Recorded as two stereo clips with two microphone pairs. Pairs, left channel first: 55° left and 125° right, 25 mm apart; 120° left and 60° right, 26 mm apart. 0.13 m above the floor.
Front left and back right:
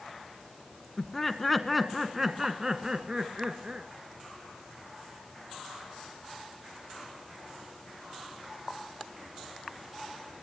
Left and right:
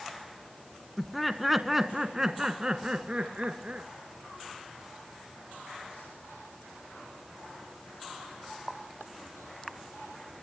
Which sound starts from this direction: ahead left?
Laughter, at 1.0 s.